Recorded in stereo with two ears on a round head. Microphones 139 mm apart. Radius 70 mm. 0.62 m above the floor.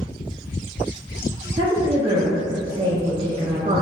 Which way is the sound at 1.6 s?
35° right (ahead or behind).